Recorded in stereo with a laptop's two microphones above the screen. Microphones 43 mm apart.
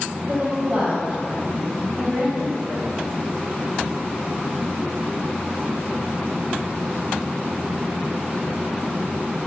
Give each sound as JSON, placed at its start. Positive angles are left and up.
{"t": 0.3, "sound": "a woman speaking", "side_deg": -25, "distance_m": 0.7}